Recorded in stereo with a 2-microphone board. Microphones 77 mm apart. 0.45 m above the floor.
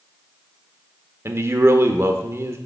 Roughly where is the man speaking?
Right.